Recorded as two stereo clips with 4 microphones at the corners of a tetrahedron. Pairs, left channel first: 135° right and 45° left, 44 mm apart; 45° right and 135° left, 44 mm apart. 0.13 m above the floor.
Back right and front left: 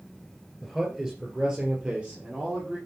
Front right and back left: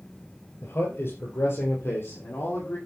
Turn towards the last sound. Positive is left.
turn(degrees=-15)